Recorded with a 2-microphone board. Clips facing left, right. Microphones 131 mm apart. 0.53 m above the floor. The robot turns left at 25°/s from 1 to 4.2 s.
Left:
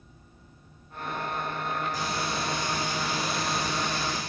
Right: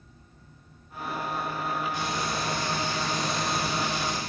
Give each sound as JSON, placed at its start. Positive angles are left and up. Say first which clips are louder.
{"t": 1.9, "sound": "frying", "louder": "right 1 dB", "azimuth_deg": 40, "distance_m": 3.0}